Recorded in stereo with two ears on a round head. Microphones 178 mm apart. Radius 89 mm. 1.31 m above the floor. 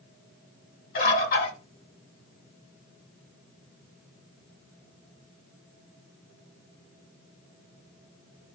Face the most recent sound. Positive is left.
turn(degrees=50)  # may be behind; listen again after turning